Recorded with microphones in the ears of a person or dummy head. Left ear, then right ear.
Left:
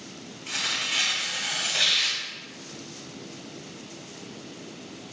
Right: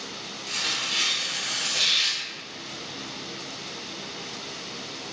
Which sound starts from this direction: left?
Tearing paper, at 0.5 s.